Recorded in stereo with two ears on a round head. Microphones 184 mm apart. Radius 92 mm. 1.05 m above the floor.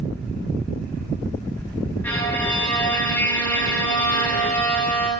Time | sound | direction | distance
2.0 | a violin | 10° left (ahead or behind) | 6.5 m